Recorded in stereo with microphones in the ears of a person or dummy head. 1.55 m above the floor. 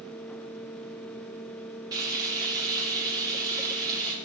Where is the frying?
20° right (ahead or behind), 2.0 m.